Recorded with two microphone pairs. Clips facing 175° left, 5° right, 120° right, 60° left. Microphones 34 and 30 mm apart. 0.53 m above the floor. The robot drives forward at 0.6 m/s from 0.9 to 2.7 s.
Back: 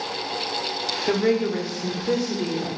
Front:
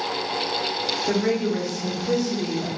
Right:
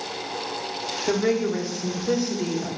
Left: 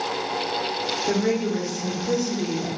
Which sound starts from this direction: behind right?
A woman speaking, at 1.1 s.